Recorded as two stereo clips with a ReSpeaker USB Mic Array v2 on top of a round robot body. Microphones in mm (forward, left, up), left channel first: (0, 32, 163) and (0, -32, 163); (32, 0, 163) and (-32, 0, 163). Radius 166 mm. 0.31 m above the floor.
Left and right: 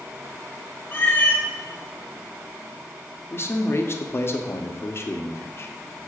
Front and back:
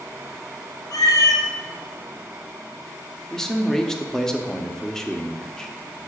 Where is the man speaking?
80° left, 1.0 m.